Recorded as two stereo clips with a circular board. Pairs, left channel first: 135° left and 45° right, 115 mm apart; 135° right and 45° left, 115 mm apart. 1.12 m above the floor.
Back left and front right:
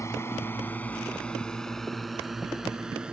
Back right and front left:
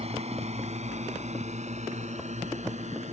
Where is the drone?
70° left; by 3.1 s 35° left.